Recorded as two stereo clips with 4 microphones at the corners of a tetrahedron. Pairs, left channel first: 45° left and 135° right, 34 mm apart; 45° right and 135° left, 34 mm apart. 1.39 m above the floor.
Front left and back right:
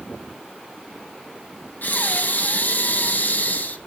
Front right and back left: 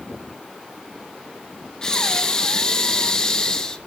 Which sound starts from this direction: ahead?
Breathing, at 1.8 s.